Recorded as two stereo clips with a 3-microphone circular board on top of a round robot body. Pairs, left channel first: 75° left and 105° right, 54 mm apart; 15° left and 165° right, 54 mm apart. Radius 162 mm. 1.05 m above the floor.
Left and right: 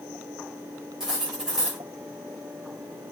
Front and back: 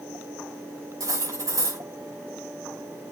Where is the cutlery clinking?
175° left, 5.5 m.